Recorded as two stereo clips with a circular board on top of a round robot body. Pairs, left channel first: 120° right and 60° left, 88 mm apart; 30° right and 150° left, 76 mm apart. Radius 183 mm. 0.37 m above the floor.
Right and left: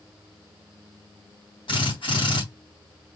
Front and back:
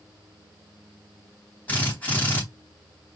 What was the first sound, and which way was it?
A drill, 100° right.